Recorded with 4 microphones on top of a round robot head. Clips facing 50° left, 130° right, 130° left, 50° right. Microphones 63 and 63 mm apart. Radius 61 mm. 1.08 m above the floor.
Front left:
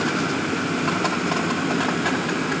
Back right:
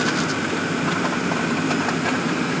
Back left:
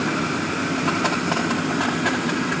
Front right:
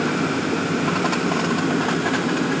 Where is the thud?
I don't hear a thud.